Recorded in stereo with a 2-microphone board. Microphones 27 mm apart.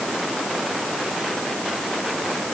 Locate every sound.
Only background noise.